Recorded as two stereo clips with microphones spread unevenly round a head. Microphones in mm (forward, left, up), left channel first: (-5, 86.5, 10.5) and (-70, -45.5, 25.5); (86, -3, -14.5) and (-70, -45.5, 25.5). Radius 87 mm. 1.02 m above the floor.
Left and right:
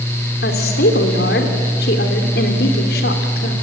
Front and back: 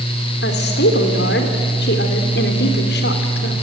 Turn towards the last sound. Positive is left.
turn(degrees=40)